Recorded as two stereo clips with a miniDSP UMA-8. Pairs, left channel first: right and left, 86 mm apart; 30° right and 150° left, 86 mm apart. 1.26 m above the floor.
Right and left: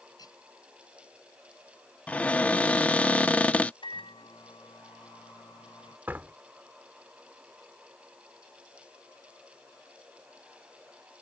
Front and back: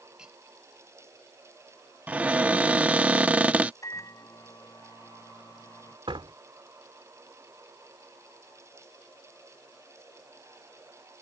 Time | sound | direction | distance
0.2 | cutlery clinking | 130° right | ?
2.1 | a cupboard door | 150° right | ?
3.8 | a microwave | 85° right | ?
6.1 | a door slam | 160° left | ?